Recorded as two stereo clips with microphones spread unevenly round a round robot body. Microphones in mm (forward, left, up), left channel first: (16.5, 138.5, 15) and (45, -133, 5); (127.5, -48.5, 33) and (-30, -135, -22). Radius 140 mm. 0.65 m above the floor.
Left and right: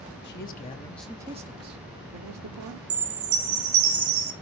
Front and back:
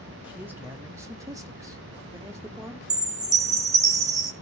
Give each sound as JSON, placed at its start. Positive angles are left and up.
{"t": 0.2, "sound": "a man speaking", "azimuth_deg": 140, "distance_m": 1.1}
{"t": 2.9, "sound": "a chime", "azimuth_deg": -130, "distance_m": 2.0}